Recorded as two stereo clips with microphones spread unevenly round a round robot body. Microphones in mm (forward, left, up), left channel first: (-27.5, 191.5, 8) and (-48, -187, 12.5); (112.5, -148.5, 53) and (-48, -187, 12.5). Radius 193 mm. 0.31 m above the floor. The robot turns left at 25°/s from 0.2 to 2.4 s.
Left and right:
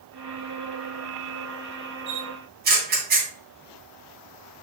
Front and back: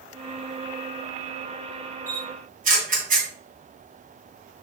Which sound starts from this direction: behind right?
A camera shutter, at 2.1 s.